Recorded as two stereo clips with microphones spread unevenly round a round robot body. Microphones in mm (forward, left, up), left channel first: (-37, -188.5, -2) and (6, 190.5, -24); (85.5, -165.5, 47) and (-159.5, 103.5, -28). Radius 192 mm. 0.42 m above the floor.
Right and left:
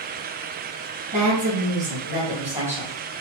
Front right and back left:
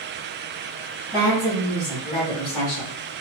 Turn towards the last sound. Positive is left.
turn(degrees=-15)